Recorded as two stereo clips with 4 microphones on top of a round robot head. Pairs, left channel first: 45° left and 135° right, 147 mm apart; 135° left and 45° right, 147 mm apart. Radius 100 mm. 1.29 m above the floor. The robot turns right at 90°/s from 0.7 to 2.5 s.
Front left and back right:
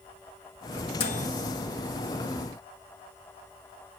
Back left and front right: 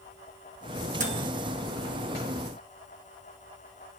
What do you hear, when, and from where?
1.0 s a microwave: 10° right, 2.0 m; by 1.3 s 20° left, 2.0 m